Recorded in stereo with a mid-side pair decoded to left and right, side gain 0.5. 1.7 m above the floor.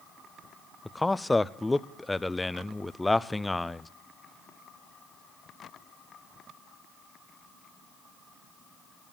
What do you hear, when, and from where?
0.8 s a man speaking: 15° left, 0.6 m